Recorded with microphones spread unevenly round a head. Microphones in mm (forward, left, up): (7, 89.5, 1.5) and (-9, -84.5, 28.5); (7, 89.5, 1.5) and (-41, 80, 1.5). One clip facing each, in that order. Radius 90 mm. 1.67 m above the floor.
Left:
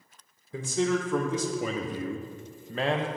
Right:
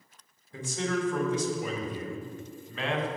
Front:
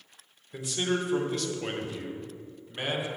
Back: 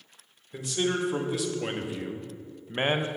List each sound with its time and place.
0.5 s a man speaking: 100° left, 1.6 m; by 3.1 s 150° left, 0.7 m